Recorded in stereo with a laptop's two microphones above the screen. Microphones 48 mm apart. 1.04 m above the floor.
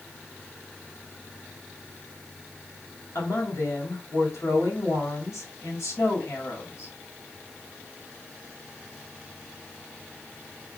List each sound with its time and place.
3.1 s a woman speaking: 75° left (ahead or behind), 4.5 m